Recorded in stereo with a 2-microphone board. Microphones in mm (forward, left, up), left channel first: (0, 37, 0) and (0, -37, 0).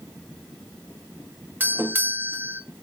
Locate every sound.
1.6 s a doorbell: 25° right (ahead or behind), 1.2 m